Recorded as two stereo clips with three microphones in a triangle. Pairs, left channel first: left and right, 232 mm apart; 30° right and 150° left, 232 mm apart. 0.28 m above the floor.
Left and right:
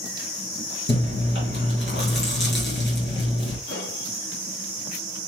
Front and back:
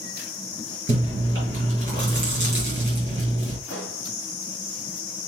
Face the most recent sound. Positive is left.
turn(degrees=95)